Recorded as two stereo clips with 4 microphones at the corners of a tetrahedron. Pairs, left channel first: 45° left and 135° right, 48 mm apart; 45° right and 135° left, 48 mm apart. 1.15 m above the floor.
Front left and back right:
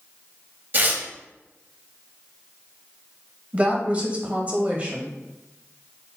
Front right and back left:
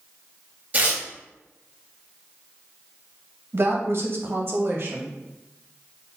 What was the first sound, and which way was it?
Tearing paper, 170° right.